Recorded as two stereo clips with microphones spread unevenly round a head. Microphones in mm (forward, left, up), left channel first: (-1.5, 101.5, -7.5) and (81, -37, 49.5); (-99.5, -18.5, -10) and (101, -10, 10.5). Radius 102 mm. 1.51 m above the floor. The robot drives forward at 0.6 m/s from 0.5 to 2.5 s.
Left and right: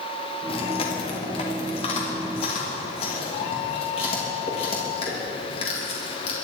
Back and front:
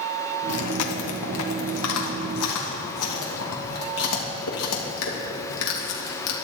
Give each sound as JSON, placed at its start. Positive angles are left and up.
{"t": 0.5, "sound": "chewing", "azimuth_deg": 180, "distance_m": 1.5}